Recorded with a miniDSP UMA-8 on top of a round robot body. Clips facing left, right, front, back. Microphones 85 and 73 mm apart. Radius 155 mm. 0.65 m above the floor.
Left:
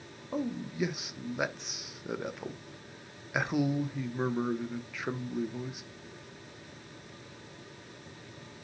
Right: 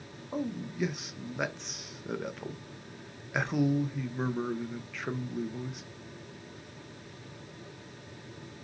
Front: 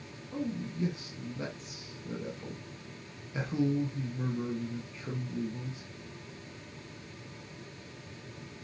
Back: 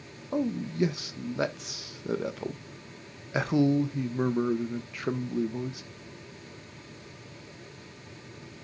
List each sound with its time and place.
0.3 s a man speaking: 175° left, 1.3 m